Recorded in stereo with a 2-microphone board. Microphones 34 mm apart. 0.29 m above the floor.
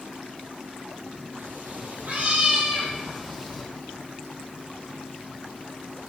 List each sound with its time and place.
1.4 s a cat meowing: 70° right (ahead or behind), 2.5 m; by 3.6 s 5° right (ahead or behind), 3.5 m